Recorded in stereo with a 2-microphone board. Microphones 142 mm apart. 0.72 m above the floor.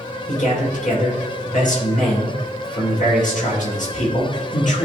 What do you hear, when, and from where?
0.3 s a man speaking: 65° left (ahead or behind), 3 m